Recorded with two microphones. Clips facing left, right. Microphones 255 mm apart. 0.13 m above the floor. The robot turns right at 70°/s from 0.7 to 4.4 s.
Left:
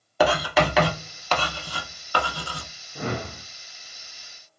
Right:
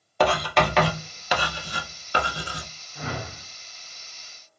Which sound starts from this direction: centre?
Writing, at 0.2 s.